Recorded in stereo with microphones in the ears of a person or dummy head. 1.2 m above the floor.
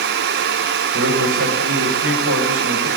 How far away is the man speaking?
About 7 m.